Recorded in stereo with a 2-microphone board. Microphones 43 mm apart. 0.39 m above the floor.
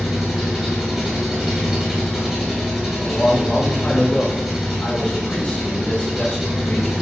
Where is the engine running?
5° right (ahead or behind), 1.8 m.